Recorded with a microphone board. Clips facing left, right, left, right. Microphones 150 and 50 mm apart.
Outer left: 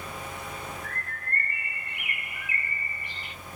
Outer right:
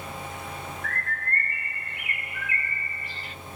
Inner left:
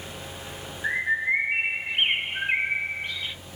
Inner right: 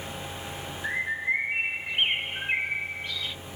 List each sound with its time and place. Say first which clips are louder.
0.8 s a bird: outer right 4 dB, inner left 4 dB; 20° left (ahead or behind), 0.9 m